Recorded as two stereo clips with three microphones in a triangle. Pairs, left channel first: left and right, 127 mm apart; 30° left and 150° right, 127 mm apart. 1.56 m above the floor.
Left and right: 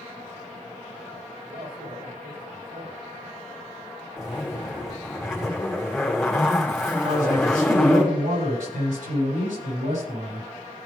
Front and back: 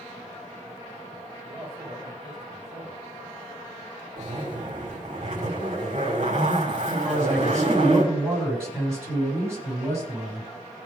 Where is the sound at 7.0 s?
80° right, 7.5 m.